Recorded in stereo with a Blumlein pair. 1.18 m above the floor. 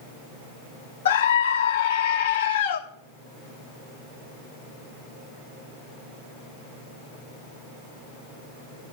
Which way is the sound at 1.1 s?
65° left.